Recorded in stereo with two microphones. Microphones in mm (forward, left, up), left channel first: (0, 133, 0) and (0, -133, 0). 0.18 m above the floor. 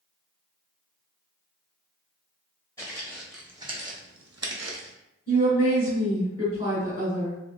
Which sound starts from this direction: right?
A woman speaking, at 5.3 s.